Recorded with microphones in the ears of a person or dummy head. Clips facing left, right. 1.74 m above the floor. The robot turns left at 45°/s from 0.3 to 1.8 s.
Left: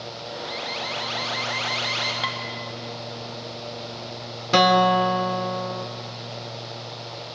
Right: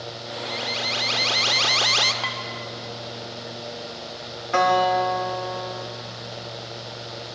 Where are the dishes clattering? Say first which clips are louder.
Left 1 dB; 20° left (ahead or behind), 1.5 m.